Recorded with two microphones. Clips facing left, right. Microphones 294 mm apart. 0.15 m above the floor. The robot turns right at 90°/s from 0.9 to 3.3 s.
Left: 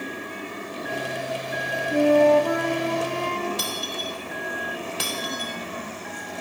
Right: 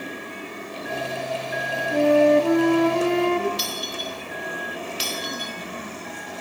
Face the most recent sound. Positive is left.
turn(degrees=60)  # may be behind; listen again after turning